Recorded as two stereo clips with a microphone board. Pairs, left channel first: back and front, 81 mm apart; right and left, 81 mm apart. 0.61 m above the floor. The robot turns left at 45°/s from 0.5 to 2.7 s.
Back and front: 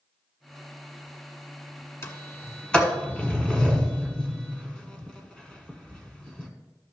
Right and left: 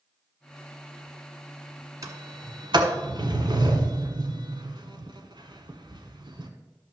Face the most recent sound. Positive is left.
turn(degrees=100)